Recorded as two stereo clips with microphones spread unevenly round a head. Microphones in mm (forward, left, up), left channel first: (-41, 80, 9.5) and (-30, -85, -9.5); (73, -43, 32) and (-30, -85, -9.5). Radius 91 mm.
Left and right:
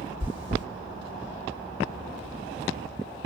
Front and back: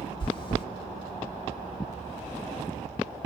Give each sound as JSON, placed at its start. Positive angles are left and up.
{"t": 0.2, "sound": "chewing", "azimuth_deg": -20, "distance_m": 2.0}